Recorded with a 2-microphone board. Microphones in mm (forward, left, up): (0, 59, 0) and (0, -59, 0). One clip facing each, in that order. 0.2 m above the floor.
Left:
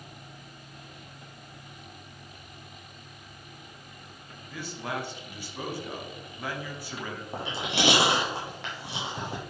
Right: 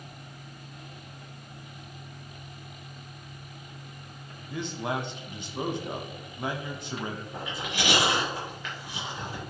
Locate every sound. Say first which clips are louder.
4.5 s a man speaking: right 4 dB; 25° right (ahead or behind), 1.0 m
7.3 s chewing: left 3 dB; 75° left (ahead or behind), 3.5 m